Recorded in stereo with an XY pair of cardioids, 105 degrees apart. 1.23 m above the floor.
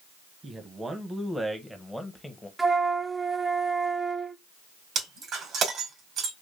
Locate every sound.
0.4 s a man speaking: 35° right, 1.4 m; by 2.5 s 15° left, 1.1 m
2.6 s a flute: 20° right, 0.8 m
5.0 s breaking glass: 65° right, 2 m